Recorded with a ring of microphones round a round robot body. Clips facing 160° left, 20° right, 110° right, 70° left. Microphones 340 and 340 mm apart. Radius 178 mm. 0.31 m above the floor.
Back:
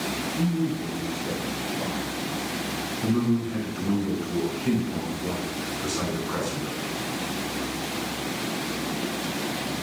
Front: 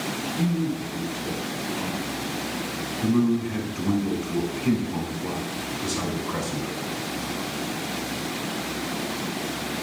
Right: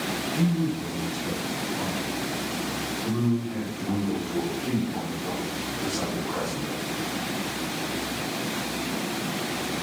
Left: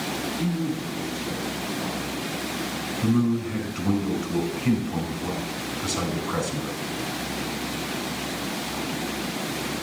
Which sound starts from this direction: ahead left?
A man speaking, at 3.0 s.